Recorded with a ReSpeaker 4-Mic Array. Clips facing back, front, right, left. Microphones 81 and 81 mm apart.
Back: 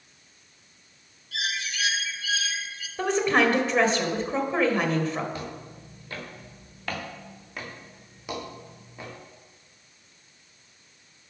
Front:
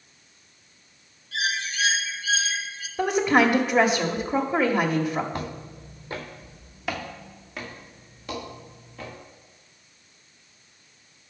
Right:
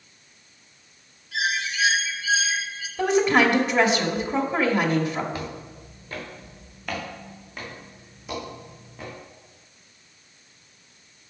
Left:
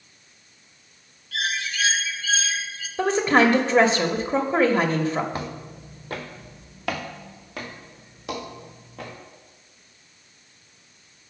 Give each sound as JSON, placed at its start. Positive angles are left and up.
{"t": 1.3, "sound": "a bird", "azimuth_deg": -30, "distance_m": 0.9}
{"t": 3.0, "sound": "a woman speaking", "azimuth_deg": 70, "distance_m": 1.0}
{"t": 5.3, "sound": "footsteps", "azimuth_deg": 45, "distance_m": 1.8}